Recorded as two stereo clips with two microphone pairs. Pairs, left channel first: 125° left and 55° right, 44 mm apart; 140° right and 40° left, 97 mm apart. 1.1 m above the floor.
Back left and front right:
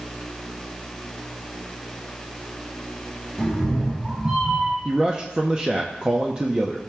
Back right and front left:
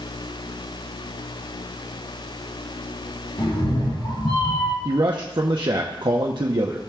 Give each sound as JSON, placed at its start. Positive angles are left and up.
{"t": 3.4, "sound": "a cat meowing", "azimuth_deg": -150, "distance_m": 3.0}
{"t": 4.8, "sound": "a man speaking", "azimuth_deg": 10, "distance_m": 0.7}